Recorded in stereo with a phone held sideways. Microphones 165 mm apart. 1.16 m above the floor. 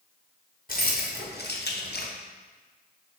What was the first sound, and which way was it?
Keys jangling, 55° left (ahead or behind).